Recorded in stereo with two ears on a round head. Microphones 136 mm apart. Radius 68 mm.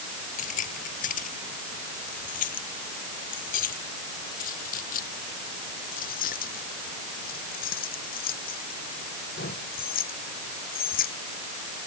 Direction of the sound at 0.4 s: 55° left (ahead or behind).